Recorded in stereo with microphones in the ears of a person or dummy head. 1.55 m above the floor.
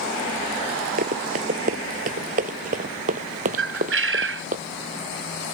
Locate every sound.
1.0 s running footsteps: 45° right (ahead or behind)
3.6 s a bird: 70° right (ahead or behind)